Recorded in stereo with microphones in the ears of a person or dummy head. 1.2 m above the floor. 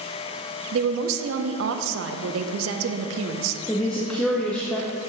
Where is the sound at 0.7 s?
70° right (ahead or behind), 0.6 m.